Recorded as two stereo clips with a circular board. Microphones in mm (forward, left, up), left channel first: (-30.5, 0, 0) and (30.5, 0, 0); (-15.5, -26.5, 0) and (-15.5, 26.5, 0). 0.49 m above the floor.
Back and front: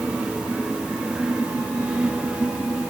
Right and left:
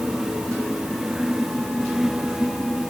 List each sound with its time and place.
Only background noise.